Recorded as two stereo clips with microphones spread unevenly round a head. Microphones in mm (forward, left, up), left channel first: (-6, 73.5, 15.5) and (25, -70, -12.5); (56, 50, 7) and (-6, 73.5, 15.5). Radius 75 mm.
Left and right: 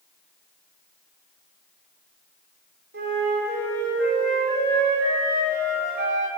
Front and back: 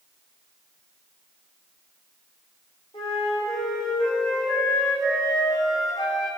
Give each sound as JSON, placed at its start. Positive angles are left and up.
{"t": 2.9, "sound": "a flute", "azimuth_deg": -60, "distance_m": 3.5}